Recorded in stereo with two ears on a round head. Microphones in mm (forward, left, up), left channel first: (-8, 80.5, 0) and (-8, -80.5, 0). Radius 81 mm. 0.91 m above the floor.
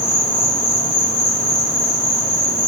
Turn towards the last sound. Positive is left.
turn(degrees=35)  # may be behind; listen again after turning